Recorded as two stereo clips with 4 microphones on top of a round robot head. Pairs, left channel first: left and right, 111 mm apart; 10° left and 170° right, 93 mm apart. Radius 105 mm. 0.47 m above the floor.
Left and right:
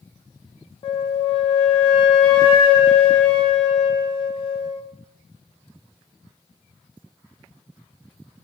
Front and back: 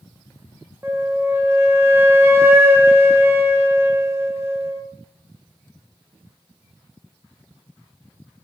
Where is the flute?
125° left, 0.8 m.